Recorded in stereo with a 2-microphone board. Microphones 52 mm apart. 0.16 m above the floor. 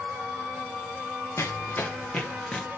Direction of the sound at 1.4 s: 60° left (ahead or behind).